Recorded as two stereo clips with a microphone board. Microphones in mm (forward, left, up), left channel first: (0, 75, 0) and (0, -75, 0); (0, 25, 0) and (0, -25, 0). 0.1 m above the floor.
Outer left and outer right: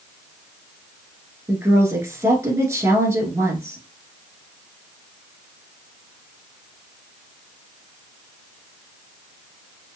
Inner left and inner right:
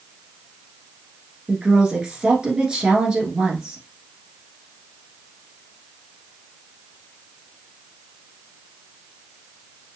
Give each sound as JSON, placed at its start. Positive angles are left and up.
{"t": 1.5, "sound": "a woman speaking", "side_deg": -15, "distance_m": 1.2}